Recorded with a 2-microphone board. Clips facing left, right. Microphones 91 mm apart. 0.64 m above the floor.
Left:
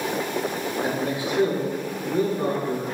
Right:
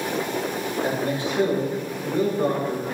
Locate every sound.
0.8 s a man speaking: 10° left (ahead or behind), 1.5 m